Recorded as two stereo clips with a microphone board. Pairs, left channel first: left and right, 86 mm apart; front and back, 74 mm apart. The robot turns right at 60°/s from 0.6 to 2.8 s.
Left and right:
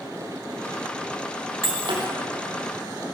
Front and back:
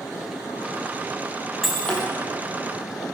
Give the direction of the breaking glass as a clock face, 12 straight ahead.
3 o'clock.